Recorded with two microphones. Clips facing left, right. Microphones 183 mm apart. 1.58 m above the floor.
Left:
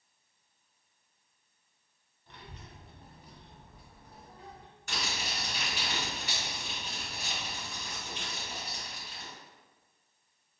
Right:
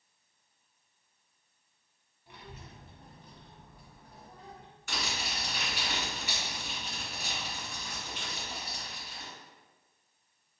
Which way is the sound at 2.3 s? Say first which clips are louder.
Right 1 dB; 10° right (ahead or behind).